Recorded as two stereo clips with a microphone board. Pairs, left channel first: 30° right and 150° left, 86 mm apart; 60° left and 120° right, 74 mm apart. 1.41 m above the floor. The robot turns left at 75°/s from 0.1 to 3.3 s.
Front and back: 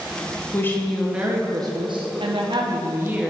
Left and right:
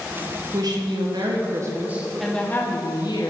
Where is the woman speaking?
85° right, 1.3 m; by 3.3 s 70° left, 1.3 m.